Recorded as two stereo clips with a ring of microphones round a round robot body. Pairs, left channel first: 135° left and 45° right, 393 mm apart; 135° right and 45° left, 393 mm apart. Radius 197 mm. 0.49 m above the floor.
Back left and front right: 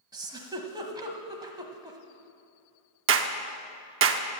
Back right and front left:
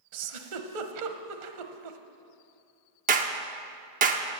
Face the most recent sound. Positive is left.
turn(degrees=-10)